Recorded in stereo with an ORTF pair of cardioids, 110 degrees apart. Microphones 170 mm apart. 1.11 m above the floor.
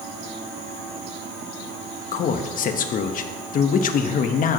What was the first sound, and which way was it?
A man speaking, 50° left.